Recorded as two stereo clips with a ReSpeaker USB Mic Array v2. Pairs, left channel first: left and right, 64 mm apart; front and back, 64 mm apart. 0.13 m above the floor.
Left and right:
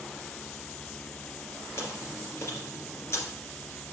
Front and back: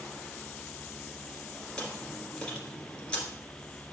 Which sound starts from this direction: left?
Chewing, at 1.8 s.